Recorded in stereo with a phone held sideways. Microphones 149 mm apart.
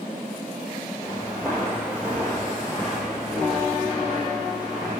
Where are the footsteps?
20° right (ahead or behind), 2.0 m; by 5.0 s centre (ahead or behind), 3.5 m.